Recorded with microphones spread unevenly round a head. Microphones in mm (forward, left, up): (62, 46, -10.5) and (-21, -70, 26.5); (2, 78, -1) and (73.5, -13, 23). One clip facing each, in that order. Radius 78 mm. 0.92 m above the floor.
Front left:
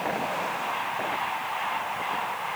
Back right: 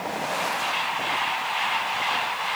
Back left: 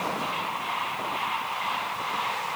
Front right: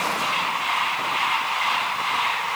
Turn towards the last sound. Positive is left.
No sound to turn to.